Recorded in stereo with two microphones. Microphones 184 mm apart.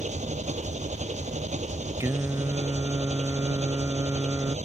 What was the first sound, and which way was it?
An engine running, 40° right (ahead or behind).